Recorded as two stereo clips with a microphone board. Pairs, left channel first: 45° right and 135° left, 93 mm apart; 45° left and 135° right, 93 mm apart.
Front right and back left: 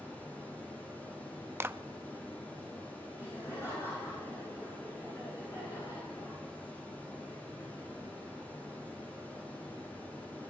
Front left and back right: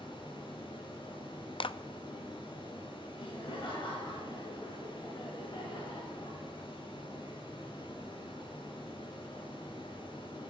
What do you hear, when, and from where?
0.0 s running water: 30° left, 8.5 m
1.6 s a clap: 70° left, 0.6 m
3.1 s laughter: 10° left, 9 m